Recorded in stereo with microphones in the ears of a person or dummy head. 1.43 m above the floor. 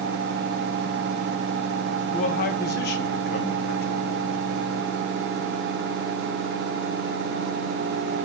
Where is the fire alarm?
I don't hear a fire alarm.